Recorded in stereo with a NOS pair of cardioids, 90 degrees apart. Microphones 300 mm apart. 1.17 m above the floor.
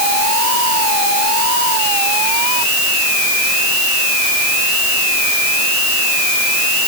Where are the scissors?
I don't hear scissors.